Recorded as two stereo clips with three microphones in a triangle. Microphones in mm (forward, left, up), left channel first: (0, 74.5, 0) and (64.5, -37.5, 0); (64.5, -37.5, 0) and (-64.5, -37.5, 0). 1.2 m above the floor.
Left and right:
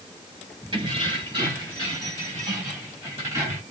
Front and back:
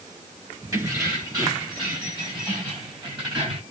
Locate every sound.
0.7 s keys jangling: 115° right, 4.5 m; by 3.6 s 130° right, 5.5 m